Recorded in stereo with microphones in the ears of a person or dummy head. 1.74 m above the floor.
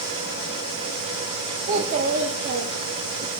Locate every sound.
1.7 s a child speaking: 40° right (ahead or behind), 2 m; by 3.3 s 60° right (ahead or behind), 2 m